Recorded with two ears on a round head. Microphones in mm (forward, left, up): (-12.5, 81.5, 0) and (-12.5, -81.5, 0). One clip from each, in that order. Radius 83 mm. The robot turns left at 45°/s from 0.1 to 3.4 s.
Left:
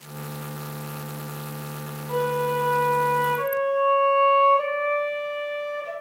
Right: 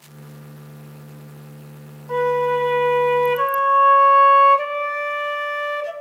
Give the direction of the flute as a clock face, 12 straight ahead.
2 o'clock.